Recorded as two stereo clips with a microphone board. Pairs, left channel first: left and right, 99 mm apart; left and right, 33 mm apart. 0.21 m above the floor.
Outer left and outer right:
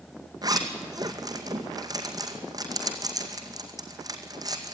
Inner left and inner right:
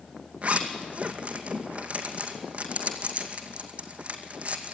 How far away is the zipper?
About 2 m.